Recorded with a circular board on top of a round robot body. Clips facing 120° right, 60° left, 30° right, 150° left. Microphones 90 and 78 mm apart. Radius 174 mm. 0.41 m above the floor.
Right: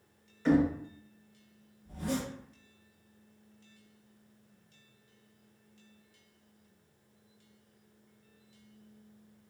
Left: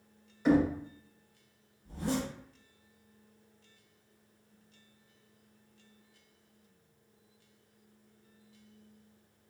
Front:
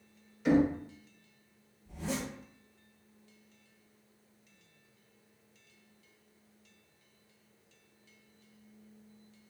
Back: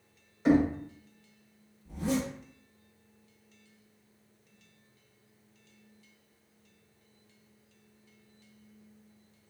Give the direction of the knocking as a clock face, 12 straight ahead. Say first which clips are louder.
Even, back 2 dB; 8 o'clock.